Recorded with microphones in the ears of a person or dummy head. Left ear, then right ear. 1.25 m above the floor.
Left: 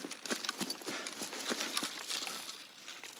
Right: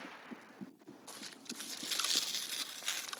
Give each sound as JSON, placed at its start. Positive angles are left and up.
{"t": 1.7, "sound": "tearing paper", "side_deg": -45, "distance_m": 0.7}